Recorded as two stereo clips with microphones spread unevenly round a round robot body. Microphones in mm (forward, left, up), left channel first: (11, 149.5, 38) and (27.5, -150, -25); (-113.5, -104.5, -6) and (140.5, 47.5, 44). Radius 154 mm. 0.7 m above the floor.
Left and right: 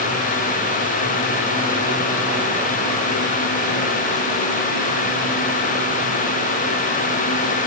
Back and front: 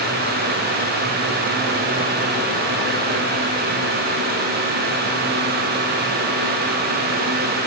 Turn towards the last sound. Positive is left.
No sound to turn to.